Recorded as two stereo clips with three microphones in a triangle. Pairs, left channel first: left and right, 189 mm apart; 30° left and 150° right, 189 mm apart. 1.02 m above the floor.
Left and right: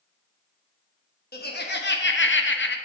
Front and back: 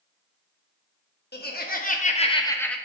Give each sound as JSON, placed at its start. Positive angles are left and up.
{"t": 1.3, "sound": "laughter", "azimuth_deg": 60, "distance_m": 1.1}